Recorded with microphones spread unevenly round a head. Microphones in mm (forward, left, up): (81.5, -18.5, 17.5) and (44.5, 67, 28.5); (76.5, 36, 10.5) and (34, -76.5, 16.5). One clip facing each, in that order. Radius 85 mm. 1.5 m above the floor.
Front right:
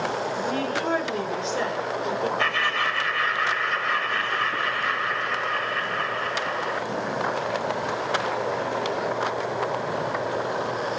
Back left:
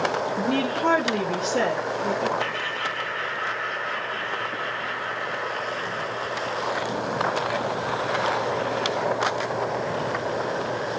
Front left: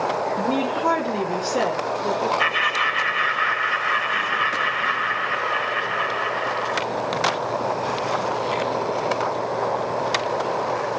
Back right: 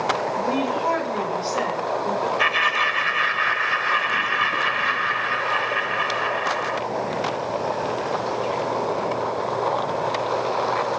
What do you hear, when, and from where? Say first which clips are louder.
0.4 s a woman speaking: back left 2 dB, front left 1 dB; 135° left, 1.3 m; by 2.3 s 125° left, 3 m
2.4 s laughter: front right 3 dB, back right 1 dB; 75° right, 1.2 m